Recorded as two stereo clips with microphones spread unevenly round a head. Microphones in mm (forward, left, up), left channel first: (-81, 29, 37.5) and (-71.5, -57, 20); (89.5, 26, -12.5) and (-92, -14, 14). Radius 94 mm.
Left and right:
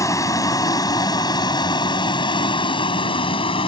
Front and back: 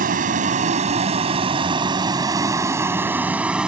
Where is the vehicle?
145° left; by 3.7 s 110° left.